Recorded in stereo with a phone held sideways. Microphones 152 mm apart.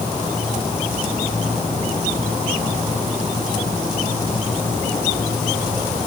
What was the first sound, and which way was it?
Only background noise.